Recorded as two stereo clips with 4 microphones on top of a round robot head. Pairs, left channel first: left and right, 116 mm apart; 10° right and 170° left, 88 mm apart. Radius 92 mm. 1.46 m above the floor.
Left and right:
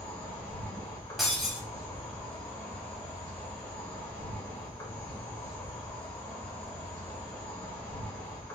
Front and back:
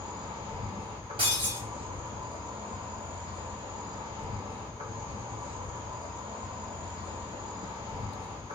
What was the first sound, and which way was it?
An insect, 155° left.